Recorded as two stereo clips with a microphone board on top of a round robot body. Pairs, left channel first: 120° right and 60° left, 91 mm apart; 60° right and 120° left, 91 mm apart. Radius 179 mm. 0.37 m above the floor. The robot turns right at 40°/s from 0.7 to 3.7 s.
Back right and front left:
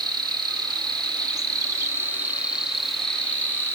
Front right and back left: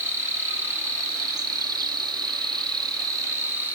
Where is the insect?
65° left, 1.3 m; by 3.8 s 175° right, 1.3 m.